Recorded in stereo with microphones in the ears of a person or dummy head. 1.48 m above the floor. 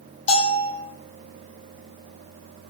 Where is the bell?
30° left (ahead or behind), 1.7 m.